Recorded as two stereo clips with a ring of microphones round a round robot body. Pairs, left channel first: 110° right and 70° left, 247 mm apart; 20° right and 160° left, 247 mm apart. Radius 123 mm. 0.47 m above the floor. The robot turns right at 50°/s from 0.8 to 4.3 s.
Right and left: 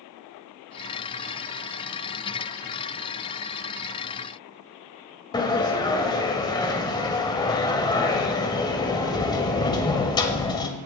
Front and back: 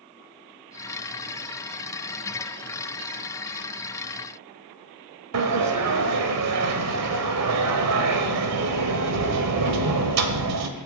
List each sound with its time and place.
5.3 s a sliding door: 175° left, 1.3 m